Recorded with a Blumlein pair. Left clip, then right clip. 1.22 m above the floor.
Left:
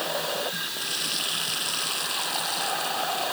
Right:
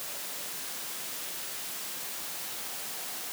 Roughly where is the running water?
Ahead left.